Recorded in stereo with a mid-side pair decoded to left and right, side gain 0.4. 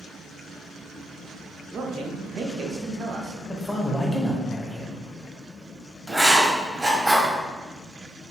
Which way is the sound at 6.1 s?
15° right.